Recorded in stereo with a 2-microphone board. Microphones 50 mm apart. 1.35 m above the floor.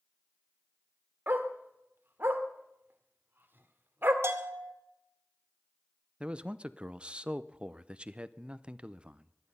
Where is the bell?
60° right (ahead or behind), 2 m.